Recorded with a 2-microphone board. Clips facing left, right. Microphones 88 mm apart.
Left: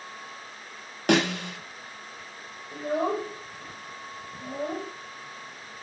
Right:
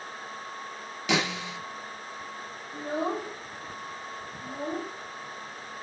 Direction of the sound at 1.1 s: 55° left (ahead or behind).